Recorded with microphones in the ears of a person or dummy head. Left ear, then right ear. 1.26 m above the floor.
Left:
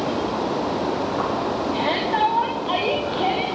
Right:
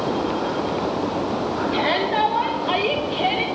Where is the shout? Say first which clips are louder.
Right 2 dB; 55° right (ahead or behind), 1.8 m.